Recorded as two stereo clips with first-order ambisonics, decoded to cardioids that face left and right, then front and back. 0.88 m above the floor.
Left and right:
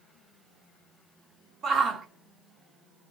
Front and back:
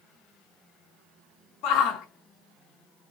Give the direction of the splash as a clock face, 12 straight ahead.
I don't hear a splash.